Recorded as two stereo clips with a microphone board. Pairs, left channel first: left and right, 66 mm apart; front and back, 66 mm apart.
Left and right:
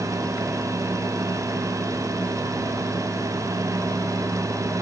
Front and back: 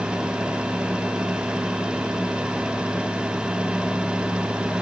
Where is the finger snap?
No finger snap in this recording.